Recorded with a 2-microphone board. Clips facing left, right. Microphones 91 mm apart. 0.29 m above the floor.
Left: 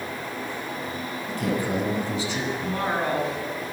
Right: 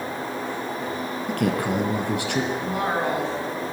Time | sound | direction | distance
1.3 | a man speaking | 65° right (ahead or behind) | 2.5 m
2.6 | a woman speaking | 10° right (ahead or behind) | 3.5 m